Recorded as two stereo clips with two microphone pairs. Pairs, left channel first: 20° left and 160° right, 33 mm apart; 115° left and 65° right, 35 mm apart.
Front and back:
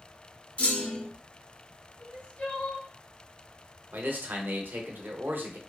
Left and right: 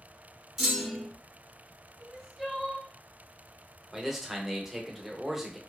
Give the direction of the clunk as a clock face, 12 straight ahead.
11 o'clock.